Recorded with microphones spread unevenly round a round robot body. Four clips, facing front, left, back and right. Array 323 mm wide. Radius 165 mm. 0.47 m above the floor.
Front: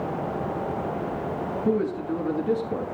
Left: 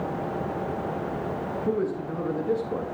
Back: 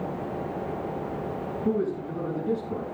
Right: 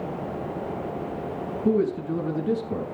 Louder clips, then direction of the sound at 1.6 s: Right 5 dB, front 2 dB; 95° right.